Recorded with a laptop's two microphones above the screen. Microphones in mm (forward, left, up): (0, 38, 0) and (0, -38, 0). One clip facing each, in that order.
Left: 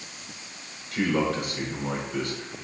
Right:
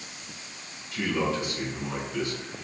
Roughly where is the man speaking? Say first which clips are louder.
Left 3 dB; left.